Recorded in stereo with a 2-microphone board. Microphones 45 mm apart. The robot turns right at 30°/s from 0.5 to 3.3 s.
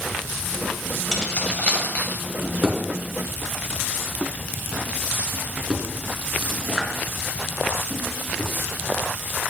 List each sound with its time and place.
1.1 s keys jangling: 15° left (ahead or behind), 2.5 m; by 2.2 s 50° left (ahead or behind), 2.5 m
2.4 s a drawer: 40° right (ahead or behind), 2.5 m; by 8.5 s 10° right (ahead or behind), 2.5 m